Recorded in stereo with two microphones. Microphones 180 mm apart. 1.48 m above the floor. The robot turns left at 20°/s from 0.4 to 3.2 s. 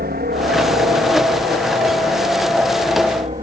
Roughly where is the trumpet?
I don't hear a trumpet.